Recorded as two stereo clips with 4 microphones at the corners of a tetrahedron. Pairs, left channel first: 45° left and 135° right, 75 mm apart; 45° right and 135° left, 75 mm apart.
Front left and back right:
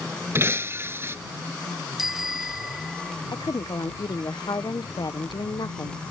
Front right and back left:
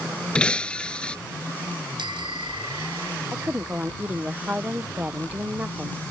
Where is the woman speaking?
65° left.